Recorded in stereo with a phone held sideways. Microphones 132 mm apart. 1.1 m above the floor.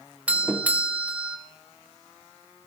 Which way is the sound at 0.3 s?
10° right (ahead or behind).